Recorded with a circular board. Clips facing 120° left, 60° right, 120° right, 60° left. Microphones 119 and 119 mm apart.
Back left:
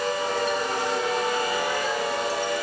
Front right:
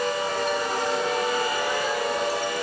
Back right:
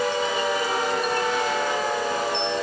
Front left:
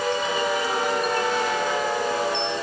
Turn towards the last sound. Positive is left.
No sound to turn to.